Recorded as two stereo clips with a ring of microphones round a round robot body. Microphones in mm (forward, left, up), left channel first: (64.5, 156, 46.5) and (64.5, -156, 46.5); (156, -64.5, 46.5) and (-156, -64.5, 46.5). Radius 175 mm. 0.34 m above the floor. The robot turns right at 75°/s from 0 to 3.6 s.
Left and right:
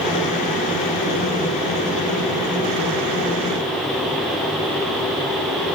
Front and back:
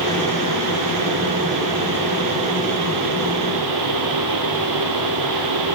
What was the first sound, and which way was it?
Only background noise.